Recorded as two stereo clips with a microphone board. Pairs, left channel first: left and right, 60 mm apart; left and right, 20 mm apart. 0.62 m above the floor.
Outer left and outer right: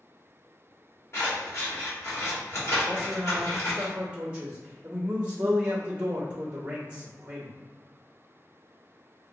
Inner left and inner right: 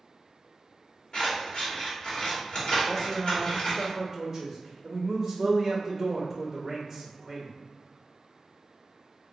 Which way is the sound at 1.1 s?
50° left (ahead or behind).